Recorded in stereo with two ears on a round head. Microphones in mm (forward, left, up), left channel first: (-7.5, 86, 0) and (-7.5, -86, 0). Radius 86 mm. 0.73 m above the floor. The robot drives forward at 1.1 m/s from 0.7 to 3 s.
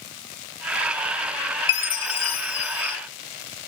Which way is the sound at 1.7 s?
60° left (ahead or behind).